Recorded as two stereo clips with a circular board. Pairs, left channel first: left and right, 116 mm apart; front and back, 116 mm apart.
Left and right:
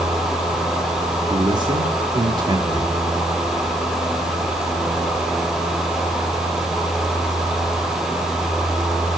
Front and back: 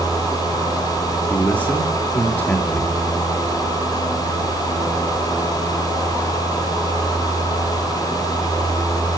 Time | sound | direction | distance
1.3 | a man speaking | 70° right | 1.5 m